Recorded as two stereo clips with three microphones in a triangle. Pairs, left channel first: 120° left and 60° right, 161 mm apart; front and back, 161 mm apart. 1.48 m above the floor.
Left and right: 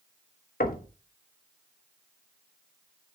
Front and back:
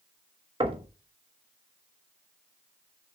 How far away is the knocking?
About 1.4 m.